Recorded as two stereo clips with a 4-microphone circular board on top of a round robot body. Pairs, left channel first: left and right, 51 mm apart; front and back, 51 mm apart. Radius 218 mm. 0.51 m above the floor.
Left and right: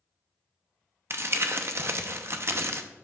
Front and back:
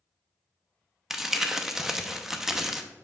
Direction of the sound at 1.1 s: 100° right.